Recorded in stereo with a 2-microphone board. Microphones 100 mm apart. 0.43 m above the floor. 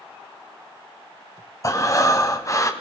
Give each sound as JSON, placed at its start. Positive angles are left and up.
{"t": 1.6, "sound": "breathing", "side_deg": 30, "distance_m": 1.5}